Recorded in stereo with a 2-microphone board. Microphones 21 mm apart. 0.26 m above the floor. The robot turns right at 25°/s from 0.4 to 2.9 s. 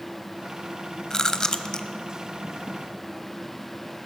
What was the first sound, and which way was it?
Chewing, 30° left (ahead or behind).